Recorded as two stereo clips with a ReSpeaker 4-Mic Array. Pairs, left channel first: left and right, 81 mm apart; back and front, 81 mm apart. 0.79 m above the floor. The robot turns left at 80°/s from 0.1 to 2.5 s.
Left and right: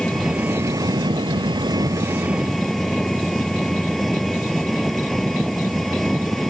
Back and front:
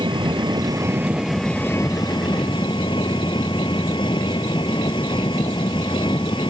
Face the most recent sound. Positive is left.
turn(degrees=175)